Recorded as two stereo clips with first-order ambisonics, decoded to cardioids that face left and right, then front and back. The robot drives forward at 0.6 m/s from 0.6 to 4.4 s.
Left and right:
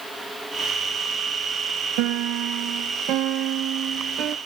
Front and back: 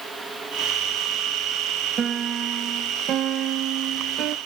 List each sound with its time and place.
2.0 s a piano: 115° right; by 4.4 s 140° right